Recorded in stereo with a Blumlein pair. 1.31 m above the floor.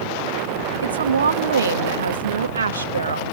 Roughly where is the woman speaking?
Right.